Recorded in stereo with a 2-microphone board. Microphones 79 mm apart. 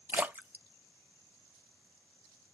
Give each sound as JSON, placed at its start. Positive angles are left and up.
{"t": 0.1, "sound": "a splash", "side_deg": -20, "distance_m": 0.5}